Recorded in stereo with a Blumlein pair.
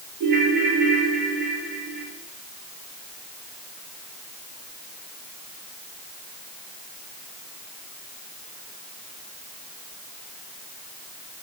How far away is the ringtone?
About 4 m.